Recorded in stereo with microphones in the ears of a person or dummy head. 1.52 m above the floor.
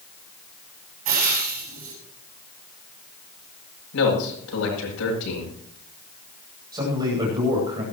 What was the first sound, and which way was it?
Frying, 40° right (ahead or behind).